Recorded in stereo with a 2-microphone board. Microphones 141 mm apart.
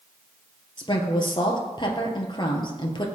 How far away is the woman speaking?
About 2 m.